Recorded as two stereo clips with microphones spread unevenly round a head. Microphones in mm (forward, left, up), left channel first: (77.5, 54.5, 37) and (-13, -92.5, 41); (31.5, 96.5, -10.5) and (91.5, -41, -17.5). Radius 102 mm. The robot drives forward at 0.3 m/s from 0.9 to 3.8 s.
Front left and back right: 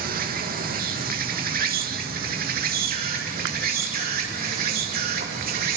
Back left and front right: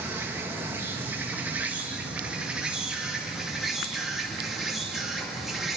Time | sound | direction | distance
0.0 | an insect | 140° right | 1.8 m